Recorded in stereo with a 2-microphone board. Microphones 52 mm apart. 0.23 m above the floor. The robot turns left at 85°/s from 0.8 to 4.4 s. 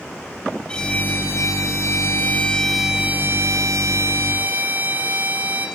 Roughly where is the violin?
Behind.